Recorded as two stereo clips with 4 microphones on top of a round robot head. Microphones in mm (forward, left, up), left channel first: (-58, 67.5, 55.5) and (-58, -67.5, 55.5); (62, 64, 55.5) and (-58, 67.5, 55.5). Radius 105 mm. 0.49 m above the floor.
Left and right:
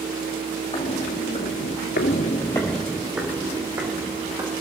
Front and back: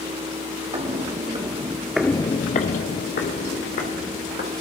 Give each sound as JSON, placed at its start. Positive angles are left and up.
{"t": 0.7, "sound": "footsteps", "azimuth_deg": 140, "distance_m": 2.0}